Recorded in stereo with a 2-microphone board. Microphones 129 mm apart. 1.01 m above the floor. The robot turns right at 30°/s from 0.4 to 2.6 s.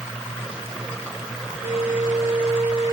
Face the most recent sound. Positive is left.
turn(degrees=-45)  # may be behind; listen again after turning